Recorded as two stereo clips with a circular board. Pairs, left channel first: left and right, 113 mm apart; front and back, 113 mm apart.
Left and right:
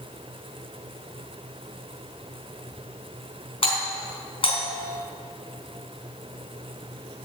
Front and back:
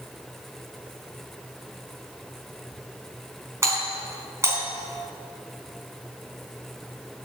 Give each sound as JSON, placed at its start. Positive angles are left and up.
{"t": 3.6, "sound": "a doorbell", "azimuth_deg": 115, "distance_m": 4.0}